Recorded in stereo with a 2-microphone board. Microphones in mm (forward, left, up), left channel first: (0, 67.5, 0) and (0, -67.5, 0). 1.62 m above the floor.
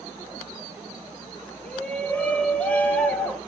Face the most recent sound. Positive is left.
turn(degrees=10)  # may be behind; listen again after turning